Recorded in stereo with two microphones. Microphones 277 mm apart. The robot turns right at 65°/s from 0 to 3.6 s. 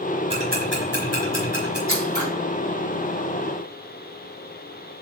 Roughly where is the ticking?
Right.